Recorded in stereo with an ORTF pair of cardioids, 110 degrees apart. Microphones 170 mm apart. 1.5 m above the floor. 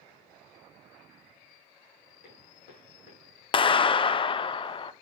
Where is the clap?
30° left, 0.5 m.